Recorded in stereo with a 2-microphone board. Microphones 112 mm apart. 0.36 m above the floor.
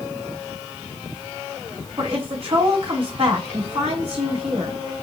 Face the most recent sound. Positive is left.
turn(degrees=-60)  # may be behind; listen again after turning